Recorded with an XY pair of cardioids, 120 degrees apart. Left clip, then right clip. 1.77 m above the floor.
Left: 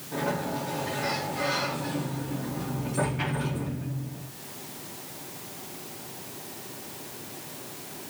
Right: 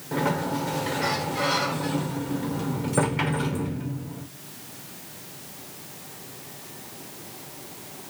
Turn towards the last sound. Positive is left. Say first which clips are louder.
# right 4 dB
turn(degrees=-70)